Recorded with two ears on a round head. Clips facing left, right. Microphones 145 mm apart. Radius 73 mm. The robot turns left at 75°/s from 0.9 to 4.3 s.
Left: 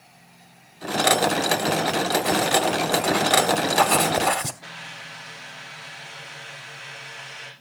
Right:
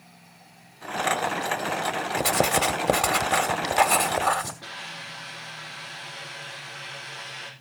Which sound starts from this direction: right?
A hiss, at 4.6 s.